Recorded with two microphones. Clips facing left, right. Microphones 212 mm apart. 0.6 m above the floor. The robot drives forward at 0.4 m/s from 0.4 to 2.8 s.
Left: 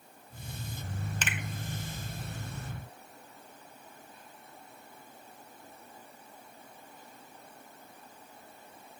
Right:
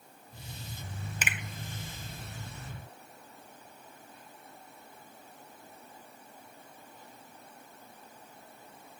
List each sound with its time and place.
1.2 s a finger snap: 10° right (ahead or behind), 0.7 m